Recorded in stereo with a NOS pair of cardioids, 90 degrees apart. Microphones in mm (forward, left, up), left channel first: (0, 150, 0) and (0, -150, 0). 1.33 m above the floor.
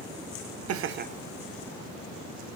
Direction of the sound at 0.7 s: 55° right.